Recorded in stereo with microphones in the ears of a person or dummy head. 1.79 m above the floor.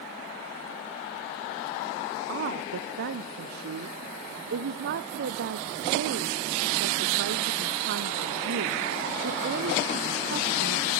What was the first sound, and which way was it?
A woman speaking, 55° right (ahead or behind).